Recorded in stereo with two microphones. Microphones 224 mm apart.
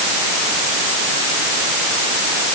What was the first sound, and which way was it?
Only background noise.